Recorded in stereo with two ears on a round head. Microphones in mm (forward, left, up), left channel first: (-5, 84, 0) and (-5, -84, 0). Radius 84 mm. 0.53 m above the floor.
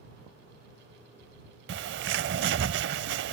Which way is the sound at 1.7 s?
65° right (ahead or behind).